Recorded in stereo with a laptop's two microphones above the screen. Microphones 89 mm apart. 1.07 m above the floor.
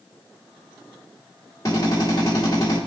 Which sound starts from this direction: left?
A drill, at 1.6 s.